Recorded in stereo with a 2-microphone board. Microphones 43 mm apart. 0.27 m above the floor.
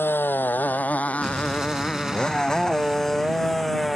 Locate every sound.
0.0 s a motorcycle: 55° left (ahead or behind); by 4.0 s 5° left (ahead or behind)
1.2 s an explosion: 10° right (ahead or behind)